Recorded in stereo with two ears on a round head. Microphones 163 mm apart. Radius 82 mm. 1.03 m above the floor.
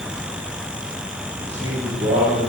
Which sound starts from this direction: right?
A man speaking, at 1.4 s.